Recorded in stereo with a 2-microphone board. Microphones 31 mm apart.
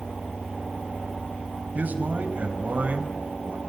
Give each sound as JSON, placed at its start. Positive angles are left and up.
{"t": 1.8, "sound": "a man speaking", "side_deg": -60, "distance_m": 5.0}